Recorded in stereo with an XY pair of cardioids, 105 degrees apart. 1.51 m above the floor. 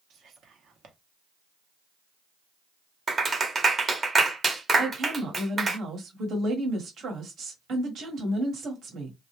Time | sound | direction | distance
0.1 | whispering | 60° right | 0.9 m
3.1 | a clap | 35° right | 0.9 m
4.8 | a woman speaking | 55° right | 1.2 m